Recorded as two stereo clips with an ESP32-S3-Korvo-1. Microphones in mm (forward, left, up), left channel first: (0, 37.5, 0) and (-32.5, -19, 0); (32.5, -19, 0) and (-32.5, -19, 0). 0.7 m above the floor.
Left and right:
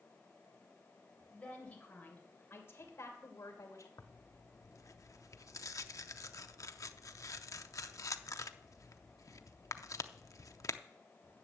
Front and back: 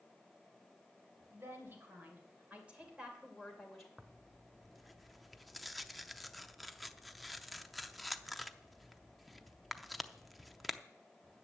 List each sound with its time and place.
1.3 s a woman speaking: 130° left, 3.5 m; by 3.9 s 85° left, 3 m
4.0 s tearing paper: 90° left, 0.6 m